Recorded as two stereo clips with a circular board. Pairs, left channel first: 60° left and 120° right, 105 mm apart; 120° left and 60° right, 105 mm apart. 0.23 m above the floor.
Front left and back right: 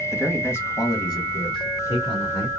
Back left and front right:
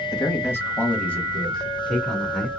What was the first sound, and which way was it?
A man speaking, 135° left.